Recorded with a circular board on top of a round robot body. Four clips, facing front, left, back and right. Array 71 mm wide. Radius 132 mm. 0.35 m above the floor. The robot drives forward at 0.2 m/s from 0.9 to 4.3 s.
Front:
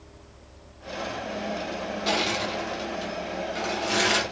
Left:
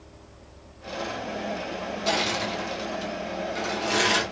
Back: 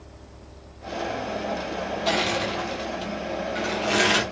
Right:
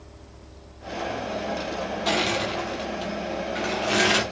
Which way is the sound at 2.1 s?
115° right.